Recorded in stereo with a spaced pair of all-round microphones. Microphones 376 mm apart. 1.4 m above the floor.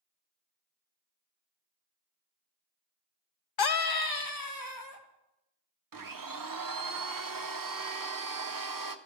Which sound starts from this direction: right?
A blender, at 5.9 s.